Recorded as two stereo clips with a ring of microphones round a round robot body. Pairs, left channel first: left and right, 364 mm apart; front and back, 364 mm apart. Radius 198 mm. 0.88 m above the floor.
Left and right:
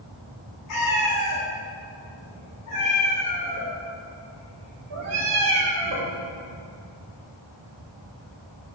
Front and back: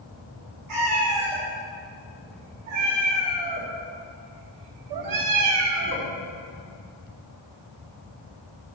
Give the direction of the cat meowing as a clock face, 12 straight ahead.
7 o'clock.